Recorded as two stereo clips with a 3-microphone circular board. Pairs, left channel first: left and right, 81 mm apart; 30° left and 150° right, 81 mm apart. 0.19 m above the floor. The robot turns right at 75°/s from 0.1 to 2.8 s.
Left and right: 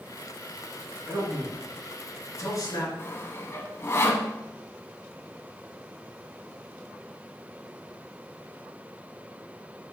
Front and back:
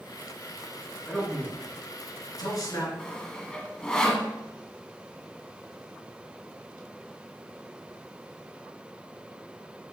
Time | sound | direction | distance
1.1 | a man speaking | 55° right | 2.5 m
3.0 | sawing | 100° left | 0.9 m